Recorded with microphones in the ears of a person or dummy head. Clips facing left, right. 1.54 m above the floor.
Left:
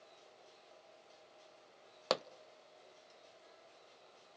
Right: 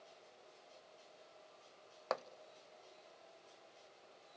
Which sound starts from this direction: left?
A pop, at 2.1 s.